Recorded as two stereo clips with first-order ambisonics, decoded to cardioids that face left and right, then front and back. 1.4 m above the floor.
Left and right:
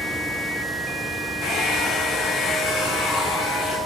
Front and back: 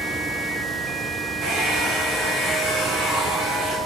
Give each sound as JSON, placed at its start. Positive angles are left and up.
{"t": 1.4, "sound": "a hair dryer", "azimuth_deg": 130, "distance_m": 2.5}